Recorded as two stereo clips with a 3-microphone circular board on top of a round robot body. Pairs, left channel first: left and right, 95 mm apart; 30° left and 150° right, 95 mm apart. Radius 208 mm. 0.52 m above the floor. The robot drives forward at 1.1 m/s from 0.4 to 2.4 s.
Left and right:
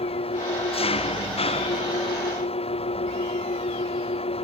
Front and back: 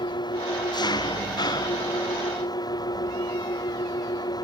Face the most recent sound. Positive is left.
turn(degrees=80)